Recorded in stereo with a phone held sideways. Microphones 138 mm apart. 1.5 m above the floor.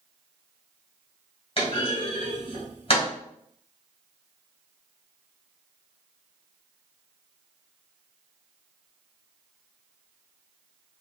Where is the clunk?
45° left (ahead or behind), 1.8 m.